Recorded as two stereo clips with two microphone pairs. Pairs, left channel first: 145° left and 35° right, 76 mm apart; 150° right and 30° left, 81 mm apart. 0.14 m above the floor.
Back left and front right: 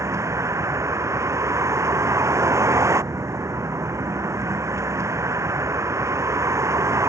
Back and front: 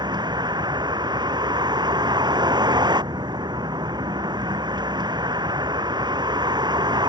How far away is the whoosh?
I don't hear a whoosh.